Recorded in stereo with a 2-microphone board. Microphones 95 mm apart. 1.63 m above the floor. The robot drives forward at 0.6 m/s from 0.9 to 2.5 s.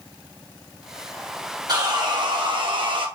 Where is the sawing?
45° right (ahead or behind), 1.3 m; by 3.1 s 60° right (ahead or behind), 1.1 m.